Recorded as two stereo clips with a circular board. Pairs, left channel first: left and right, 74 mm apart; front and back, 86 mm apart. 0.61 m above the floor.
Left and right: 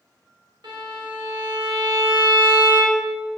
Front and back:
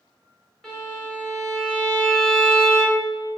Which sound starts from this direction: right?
A violin, at 0.6 s.